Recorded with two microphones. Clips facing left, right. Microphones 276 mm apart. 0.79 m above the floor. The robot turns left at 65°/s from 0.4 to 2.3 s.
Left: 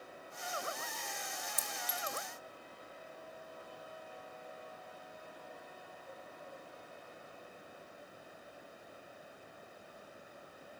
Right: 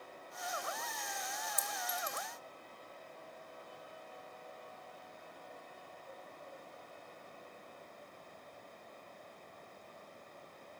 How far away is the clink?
About 1.3 m.